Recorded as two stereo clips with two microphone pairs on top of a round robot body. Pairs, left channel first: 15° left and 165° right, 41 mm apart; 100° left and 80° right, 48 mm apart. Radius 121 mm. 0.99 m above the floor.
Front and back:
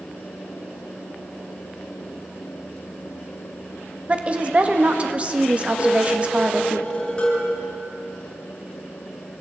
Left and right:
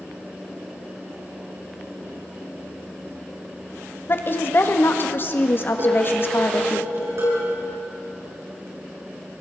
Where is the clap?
I don't hear a clap.